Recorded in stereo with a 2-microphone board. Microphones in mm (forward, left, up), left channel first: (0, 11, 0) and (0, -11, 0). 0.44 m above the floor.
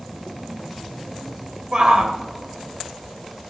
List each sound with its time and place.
1.7 s a shout: 45° right (ahead or behind), 2 m